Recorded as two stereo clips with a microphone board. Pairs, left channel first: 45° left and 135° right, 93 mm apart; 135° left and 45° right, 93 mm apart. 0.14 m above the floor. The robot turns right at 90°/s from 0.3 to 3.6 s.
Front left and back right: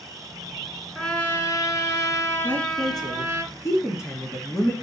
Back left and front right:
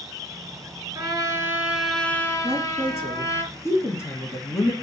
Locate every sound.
0.9 s a trumpet: 40° right, 1.5 m; by 3.4 s 175° right, 1.5 m
2.4 s a woman speaking: 15° right, 2 m; by 4.7 s 90° left, 2 m